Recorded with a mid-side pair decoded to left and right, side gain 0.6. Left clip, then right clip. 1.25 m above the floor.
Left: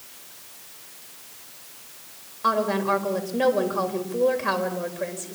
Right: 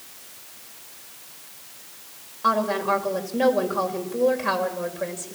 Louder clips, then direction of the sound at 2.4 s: Right 1 dB; 5° left.